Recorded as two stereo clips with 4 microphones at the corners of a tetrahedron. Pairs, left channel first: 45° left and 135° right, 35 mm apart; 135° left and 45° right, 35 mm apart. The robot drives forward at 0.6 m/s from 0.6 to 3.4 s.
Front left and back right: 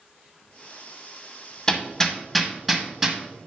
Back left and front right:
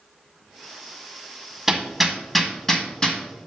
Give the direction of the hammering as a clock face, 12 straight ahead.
11 o'clock.